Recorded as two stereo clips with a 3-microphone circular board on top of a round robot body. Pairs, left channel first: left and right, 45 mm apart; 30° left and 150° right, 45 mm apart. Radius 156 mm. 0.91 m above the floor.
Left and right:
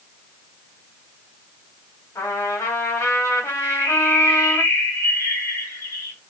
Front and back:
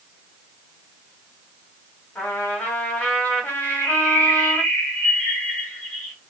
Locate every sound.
2.1 s a trumpet: 90° left, 1.8 m
3.6 s a bird: 90° left, 1.2 m